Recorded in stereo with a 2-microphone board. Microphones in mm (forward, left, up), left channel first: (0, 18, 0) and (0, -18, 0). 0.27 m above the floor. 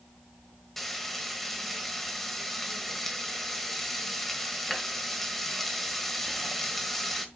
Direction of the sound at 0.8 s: 5° left (ahead or behind).